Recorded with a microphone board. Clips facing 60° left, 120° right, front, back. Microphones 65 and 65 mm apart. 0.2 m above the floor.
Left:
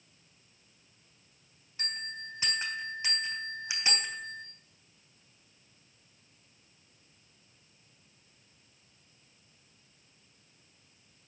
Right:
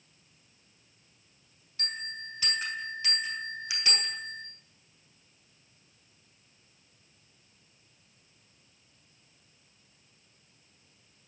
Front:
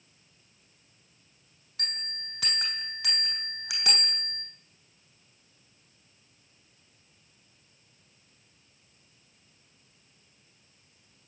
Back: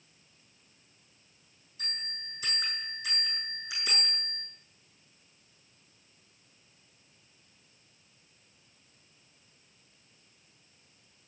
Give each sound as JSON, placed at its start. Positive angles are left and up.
{"t": 1.8, "sound": "a bell", "azimuth_deg": -5, "distance_m": 3.0}